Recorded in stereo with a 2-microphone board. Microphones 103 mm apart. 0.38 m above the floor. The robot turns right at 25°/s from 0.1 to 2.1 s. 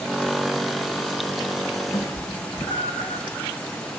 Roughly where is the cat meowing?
Left.